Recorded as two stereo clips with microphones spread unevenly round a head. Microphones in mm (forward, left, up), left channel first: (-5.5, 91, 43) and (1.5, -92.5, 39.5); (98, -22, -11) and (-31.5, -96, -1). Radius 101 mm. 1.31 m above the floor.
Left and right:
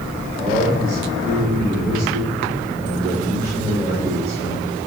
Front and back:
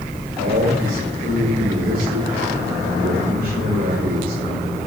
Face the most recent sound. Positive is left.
turn(degrees=-165)